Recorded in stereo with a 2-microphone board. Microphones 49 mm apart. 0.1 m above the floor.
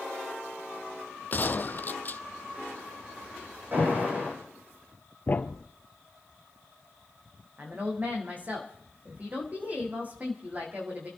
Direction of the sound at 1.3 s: 40° left (ahead or behind).